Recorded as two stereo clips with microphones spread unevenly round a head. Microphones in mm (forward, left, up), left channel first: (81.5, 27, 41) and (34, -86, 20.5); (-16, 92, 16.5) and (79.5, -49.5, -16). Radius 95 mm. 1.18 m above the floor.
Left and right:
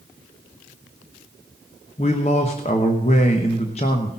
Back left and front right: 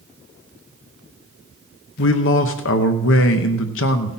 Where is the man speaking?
125° left, 0.9 m.